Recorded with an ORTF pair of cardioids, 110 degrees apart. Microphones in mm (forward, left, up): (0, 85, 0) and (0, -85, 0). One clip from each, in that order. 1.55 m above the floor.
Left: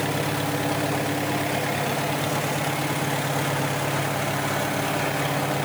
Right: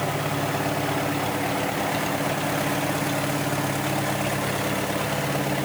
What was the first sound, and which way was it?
Only background noise.